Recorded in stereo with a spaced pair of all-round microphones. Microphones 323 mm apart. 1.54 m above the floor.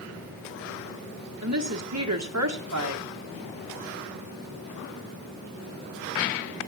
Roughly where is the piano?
I don't hear a piano.